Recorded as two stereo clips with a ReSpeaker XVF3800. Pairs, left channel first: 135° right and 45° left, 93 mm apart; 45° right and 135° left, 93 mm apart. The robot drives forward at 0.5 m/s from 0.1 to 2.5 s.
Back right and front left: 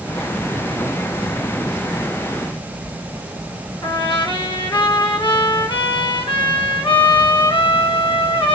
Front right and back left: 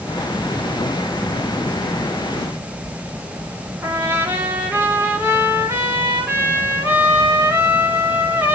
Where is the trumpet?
160° right, 3 m.